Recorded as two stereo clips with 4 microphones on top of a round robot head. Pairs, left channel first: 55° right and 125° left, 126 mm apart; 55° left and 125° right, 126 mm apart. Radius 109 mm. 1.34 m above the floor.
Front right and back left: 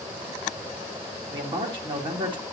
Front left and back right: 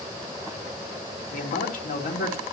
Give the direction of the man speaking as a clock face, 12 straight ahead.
10 o'clock.